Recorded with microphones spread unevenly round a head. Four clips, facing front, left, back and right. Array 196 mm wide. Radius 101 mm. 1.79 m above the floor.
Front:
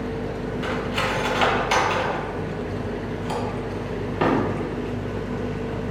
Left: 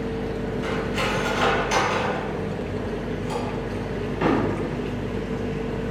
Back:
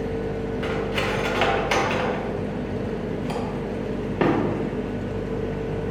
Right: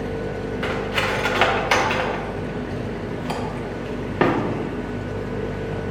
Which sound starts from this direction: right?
Cutlery clinking, at 0.6 s.